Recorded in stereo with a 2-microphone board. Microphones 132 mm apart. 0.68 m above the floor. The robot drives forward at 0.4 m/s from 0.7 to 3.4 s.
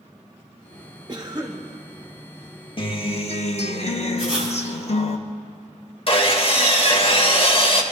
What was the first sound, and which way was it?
A cough, 30° right (ahead or behind).